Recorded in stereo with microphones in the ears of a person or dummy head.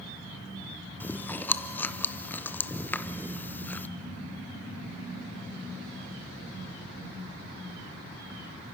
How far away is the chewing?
About 0.5 m.